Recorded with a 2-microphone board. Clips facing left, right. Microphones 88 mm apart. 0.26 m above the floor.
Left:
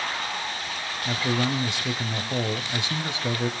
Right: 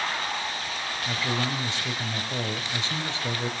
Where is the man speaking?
20° left (ahead or behind), 0.9 m.